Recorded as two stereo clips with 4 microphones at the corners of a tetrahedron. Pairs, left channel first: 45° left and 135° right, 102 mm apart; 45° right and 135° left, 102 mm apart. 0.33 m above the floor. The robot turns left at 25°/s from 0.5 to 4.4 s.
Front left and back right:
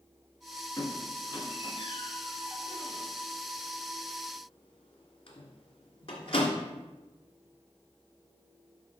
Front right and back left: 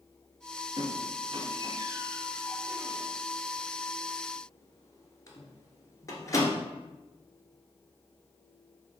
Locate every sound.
0.8 s a squeak: 105° left, 1.4 m; by 6.6 s 15° left, 1.4 m